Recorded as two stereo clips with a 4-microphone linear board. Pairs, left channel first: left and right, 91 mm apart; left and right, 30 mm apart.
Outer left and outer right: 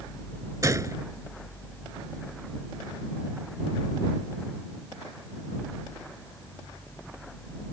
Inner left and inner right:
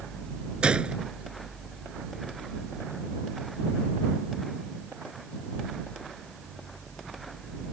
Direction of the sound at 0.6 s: 40° right (ahead or behind).